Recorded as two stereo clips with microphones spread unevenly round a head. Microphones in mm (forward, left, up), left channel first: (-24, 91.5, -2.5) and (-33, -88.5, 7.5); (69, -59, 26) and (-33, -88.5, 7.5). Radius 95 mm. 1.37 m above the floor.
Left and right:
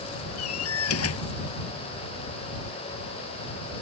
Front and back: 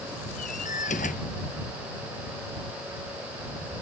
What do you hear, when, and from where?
0.4 s a door slam: 65° left